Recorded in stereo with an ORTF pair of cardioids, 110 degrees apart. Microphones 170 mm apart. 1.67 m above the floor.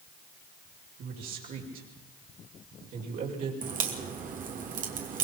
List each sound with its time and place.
1.0 s a man speaking: 65° right, 6 m
3.6 s a crack: 55° right, 3 m